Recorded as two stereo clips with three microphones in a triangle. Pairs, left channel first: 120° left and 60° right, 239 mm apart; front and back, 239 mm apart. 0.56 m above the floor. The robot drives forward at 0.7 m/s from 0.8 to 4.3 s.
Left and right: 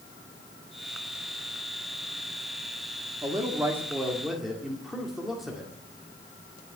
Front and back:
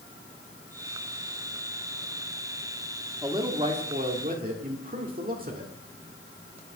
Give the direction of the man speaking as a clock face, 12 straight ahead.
4 o'clock.